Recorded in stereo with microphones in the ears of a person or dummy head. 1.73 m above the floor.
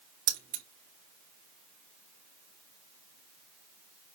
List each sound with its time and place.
0.3 s keys jangling: 40° right (ahead or behind), 1.2 m